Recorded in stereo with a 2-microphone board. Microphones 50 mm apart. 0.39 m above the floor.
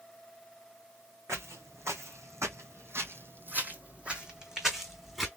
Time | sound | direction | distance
1.3 | footsteps | 65° right (ahead or behind) | 1.5 m